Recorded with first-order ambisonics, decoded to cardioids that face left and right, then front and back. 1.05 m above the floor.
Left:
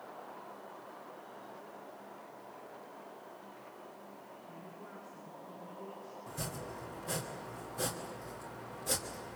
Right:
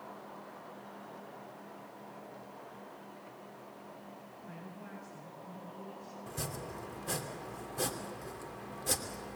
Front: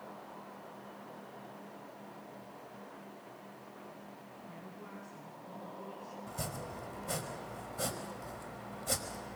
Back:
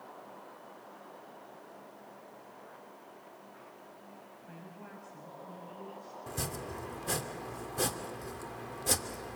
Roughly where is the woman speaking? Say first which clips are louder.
Right 2 dB, even; behind right.